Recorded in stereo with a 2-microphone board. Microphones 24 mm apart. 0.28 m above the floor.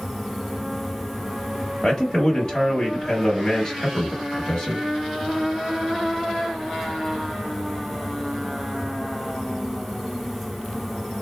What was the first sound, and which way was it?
A man speaking, 15° left (ahead or behind).